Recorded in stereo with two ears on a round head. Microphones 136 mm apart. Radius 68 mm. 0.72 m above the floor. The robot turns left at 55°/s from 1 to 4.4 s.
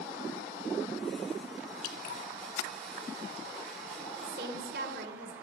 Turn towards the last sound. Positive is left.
turn(degrees=-75)  # may be behind; listen again after turning